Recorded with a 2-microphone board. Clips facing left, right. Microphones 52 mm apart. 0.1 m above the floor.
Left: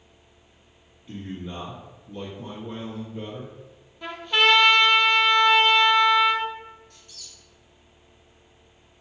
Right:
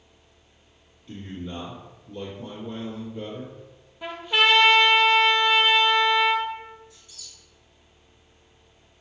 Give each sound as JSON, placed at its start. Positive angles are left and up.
{"t": 1.1, "sound": "a man speaking", "side_deg": 10, "distance_m": 1.7}
{"t": 4.0, "sound": "a trumpet", "side_deg": -10, "distance_m": 0.6}
{"t": 6.9, "sound": "a squeak", "side_deg": 65, "distance_m": 1.1}